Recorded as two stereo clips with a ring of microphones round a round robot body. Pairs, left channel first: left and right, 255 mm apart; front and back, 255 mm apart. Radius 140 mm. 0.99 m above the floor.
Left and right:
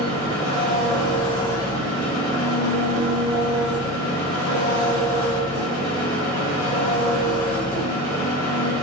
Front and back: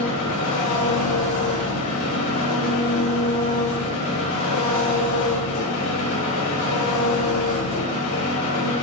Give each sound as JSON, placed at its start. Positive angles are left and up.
{"t": 0.0, "sound": "an engine running", "azimuth_deg": 10, "distance_m": 4.0}